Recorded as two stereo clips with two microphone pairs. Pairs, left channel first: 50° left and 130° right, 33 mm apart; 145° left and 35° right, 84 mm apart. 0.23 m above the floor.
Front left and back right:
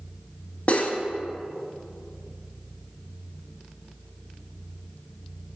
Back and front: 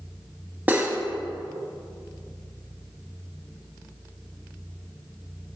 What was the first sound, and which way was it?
Cutlery clinking, 25° left.